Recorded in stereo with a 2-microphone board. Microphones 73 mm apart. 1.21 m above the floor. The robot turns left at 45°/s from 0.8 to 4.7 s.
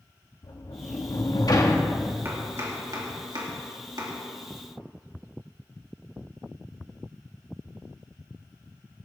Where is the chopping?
35° right (ahead or behind), 2.5 m; by 4.1 s 55° right (ahead or behind), 2.5 m.